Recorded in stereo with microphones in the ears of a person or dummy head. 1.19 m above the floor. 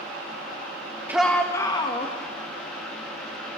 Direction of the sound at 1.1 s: 5° right (ahead or behind).